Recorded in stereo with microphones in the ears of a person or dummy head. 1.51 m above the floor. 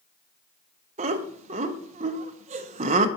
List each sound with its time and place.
1.0 s laughter: 35° right (ahead or behind), 0.5 m